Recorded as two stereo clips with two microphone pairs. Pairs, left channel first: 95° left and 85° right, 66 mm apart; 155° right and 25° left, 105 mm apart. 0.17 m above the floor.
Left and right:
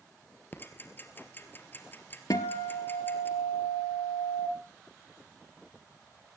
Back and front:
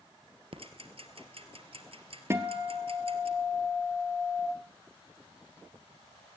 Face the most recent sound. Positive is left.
turn(degrees=90)